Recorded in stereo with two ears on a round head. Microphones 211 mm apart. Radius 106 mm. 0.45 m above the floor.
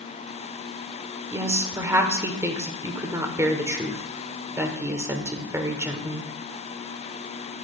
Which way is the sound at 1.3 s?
10° right (ahead or behind).